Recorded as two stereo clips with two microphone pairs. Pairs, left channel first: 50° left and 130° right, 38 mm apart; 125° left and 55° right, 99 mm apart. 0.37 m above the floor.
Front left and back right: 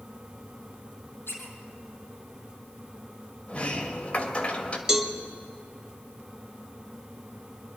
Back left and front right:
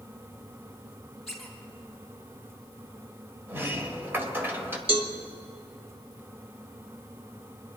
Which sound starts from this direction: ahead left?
A squeak, at 1.3 s.